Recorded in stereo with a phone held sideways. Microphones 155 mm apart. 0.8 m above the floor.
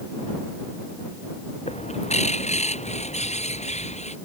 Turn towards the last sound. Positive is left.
turn(degrees=45)  # may be behind; listen again after turning